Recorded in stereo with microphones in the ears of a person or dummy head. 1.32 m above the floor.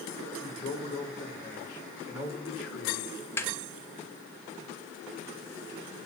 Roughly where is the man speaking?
Left.